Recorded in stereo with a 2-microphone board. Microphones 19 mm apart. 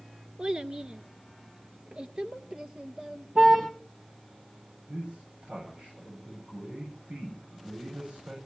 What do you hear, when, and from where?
0.4 s a child speaking: 45° right (ahead or behind), 1.1 m
3.4 s a car horn: 80° right, 8 m
4.9 s a man speaking: 75° right (ahead or behind), 8 m